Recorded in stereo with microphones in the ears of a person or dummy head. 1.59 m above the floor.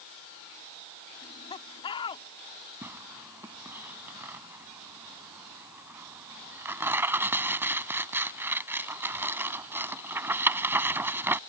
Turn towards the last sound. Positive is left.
turn(degrees=-10)  # may be behind; listen again after turning